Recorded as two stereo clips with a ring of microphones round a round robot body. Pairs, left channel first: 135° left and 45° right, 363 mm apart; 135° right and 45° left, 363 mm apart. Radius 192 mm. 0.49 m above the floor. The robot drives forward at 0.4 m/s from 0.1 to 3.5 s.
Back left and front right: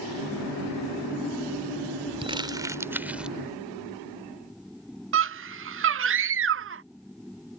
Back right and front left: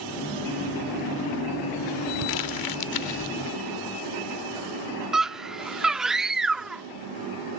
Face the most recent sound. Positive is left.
turn(degrees=-40)